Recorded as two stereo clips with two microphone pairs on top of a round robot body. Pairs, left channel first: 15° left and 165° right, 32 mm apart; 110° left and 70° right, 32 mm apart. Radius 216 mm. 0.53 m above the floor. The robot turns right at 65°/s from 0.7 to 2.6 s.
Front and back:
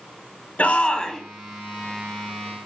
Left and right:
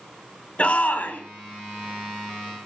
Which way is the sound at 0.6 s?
65° left.